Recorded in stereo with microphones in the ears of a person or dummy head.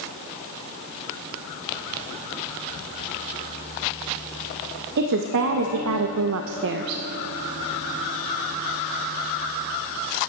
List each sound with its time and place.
5.0 s a woman speaking: 55° right (ahead or behind), 1.1 m; by 7.0 s 45° right (ahead or behind), 0.8 m